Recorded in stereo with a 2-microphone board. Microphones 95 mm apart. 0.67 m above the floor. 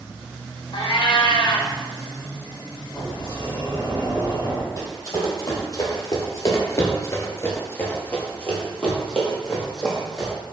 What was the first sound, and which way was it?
A cat meowing, 60° left (ahead or behind).